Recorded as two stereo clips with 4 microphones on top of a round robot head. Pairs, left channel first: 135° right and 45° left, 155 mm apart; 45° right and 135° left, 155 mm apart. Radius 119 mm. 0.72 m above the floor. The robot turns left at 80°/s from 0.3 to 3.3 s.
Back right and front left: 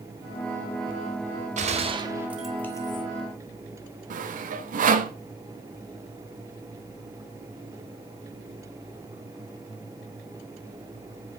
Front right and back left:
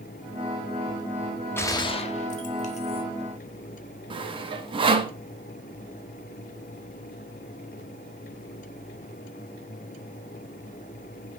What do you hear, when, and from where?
1.6 s a gunshot: 25° left, 0.7 m; by 3.0 s 90° right, 0.7 m
4.1 s sawing: 80° left, 0.5 m